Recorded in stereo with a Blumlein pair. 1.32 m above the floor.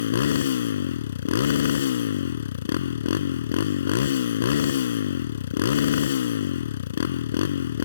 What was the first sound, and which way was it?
A motorcycle, 60° left.